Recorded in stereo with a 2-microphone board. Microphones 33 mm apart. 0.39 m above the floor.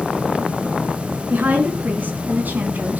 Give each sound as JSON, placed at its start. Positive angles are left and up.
{"t": 1.3, "sound": "a woman speaking", "side_deg": -65, "distance_m": 4.5}